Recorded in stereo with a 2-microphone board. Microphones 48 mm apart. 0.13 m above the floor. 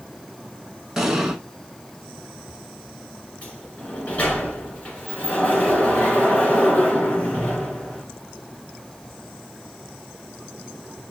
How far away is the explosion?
About 0.9 m.